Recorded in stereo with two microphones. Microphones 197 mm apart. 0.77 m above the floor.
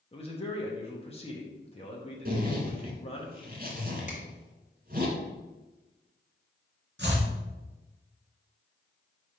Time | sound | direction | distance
0.1 | a man speaking | 30° left (ahead or behind) | 1.2 m
2.2 | a zipper | 50° right (ahead or behind) | 1.5 m
4.1 | a finger snap | 40° left (ahead or behind) | 1.7 m
7.0 | chopping | 65° right (ahead or behind) | 2.5 m